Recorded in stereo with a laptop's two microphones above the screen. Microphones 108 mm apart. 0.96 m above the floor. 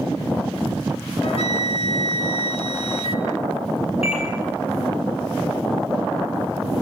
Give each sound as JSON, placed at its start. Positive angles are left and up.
{"t": 1.2, "sound": "a flute", "side_deg": 70, "distance_m": 2.0}
{"t": 4.0, "sound": "a microwave", "side_deg": 75, "distance_m": 10.0}